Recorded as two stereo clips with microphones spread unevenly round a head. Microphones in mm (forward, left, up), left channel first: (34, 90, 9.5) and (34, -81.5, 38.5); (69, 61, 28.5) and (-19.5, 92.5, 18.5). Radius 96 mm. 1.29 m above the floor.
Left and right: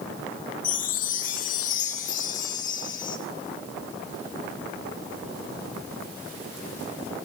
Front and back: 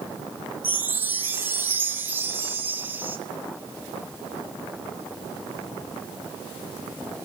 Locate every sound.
0.6 s a chime: 95° left, 0.8 m